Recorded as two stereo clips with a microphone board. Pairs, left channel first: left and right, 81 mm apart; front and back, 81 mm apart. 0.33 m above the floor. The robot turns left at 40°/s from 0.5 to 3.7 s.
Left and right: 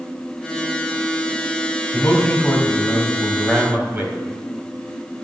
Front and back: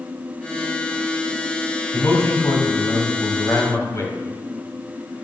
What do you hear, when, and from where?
1.9 s a man speaking: 40° left, 2.5 m; by 4.2 s 30° right, 2.5 m